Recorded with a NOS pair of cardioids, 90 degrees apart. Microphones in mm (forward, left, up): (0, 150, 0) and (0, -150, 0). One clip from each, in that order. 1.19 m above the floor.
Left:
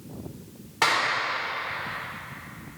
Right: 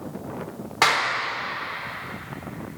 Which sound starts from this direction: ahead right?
A clap, at 0.8 s.